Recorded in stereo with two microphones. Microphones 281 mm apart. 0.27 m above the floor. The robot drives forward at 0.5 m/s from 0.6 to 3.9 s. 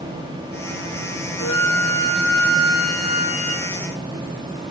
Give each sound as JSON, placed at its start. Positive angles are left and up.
{"t": 1.4, "sound": "a flute", "side_deg": 80, "distance_m": 1.6}